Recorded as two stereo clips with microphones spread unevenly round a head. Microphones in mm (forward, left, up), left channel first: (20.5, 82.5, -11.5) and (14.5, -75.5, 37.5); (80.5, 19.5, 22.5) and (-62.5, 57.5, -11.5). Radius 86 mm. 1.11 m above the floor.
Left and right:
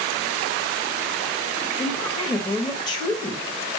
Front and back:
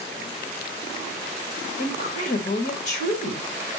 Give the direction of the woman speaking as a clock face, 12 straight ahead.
12 o'clock.